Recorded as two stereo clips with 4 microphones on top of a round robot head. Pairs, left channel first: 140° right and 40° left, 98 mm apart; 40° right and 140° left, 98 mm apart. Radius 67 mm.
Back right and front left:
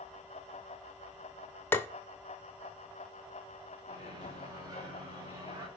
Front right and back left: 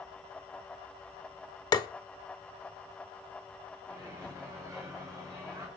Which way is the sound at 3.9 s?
90° left.